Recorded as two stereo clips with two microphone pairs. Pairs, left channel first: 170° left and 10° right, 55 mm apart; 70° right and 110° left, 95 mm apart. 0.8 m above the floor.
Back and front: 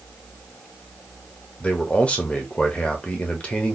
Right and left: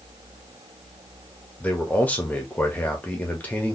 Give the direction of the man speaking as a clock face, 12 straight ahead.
5 o'clock.